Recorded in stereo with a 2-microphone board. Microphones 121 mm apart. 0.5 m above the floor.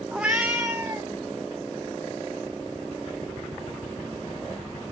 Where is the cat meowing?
5° right (ahead or behind), 0.5 m; by 1.1 s 15° right (ahead or behind), 1.8 m.